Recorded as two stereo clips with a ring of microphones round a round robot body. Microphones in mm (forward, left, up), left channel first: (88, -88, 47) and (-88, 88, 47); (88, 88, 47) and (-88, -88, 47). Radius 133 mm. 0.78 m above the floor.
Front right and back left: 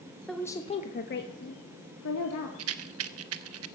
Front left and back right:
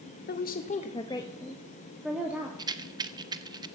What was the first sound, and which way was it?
A woman speaking, 45° left.